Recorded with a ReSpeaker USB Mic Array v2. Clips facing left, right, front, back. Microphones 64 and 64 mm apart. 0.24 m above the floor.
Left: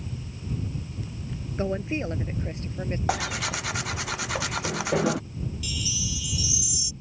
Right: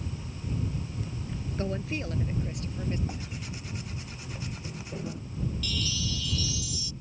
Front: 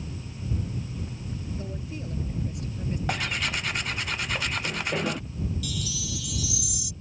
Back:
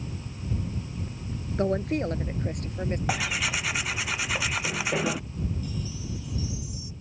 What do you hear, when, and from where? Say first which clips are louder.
1.6 s a woman speaking: left 5 dB, back 11 dB; 155° left; by 3.0 s 145° left
3.1 s tearing paper: left 12 dB, front 1 dB; 95° left
5.6 s a chime: even, front 1 dB; 10° left